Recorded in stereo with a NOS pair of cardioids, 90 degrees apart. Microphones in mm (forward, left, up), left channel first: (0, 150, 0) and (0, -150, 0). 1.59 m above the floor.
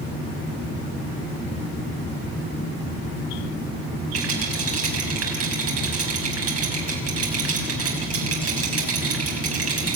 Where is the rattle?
60° right, 6 m.